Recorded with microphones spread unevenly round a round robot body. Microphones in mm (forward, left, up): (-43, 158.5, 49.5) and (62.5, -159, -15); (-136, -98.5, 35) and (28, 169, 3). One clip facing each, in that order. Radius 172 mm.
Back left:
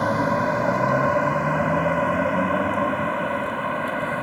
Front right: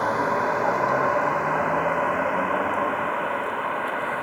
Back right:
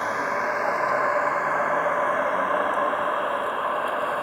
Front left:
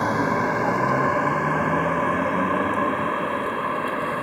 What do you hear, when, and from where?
0.0 s a vehicle: 100° left; by 4.2 s 120° left